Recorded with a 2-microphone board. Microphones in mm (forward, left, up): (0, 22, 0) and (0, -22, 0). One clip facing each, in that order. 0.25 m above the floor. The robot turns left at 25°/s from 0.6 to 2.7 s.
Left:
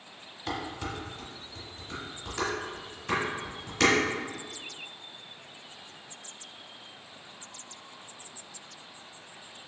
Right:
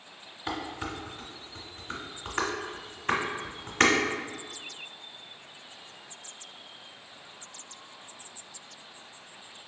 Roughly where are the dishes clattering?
Centre.